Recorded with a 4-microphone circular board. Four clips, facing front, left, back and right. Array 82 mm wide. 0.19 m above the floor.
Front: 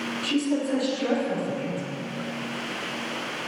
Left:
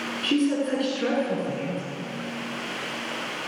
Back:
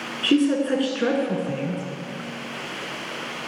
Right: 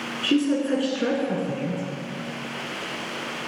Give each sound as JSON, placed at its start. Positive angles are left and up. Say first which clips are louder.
{"t": 0.2, "sound": "a woman speaking", "louder": "right 2 dB, back 6 dB", "azimuth_deg": -175, "distance_m": 3.0}